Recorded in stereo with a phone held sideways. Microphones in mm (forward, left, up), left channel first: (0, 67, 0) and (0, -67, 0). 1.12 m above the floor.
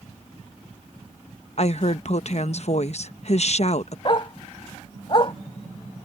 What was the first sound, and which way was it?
A woman speaking, 55° left (ahead or behind).